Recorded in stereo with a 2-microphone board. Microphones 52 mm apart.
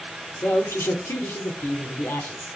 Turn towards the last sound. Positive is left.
turn(degrees=60)  # may be behind; listen again after turning